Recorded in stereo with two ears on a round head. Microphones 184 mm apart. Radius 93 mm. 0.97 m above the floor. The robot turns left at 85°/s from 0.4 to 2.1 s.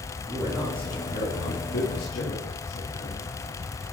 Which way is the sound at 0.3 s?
155° right.